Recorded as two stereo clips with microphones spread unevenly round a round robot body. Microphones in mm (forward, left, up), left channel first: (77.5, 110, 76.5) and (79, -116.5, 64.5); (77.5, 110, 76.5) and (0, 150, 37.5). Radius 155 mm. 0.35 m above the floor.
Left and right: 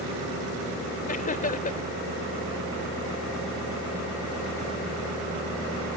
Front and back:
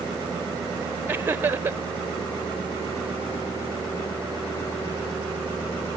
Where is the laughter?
135° left.